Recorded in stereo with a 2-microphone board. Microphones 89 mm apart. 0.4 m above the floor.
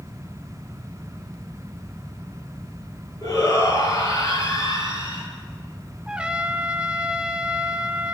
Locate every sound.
3.2 s a shout: 35° left (ahead or behind), 9 m
6.1 s a trumpet: 10° right (ahead or behind), 1.3 m